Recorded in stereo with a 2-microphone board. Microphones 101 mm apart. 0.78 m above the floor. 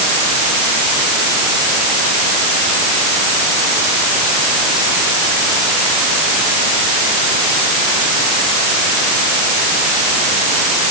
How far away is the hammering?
I don't hear hammering.